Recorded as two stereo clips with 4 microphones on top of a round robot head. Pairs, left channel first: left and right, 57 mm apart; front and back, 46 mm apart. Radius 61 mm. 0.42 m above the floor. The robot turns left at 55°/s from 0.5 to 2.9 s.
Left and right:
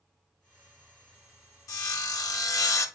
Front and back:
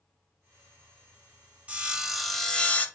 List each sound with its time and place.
1.7 s sawing: 120° left, 0.7 m; by 2.9 s 55° left, 0.7 m